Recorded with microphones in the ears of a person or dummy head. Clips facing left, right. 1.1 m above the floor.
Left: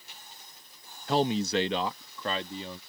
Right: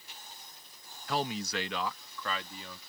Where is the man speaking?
30° left (ahead or behind).